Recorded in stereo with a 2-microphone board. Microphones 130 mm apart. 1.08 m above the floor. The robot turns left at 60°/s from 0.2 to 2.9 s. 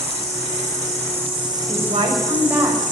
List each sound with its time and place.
0.0 s an insect: 65° right, 5 m; by 2.9 s 135° left, 5 m
1.7 s a woman speaking: 110° right, 6.5 m; by 2.9 s 175° left, 6.5 m